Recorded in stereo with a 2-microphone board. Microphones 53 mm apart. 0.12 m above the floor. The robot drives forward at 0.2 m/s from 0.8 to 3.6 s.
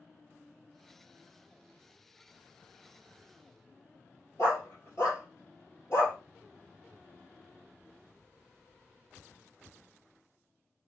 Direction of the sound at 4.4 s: 50° left (ahead or behind).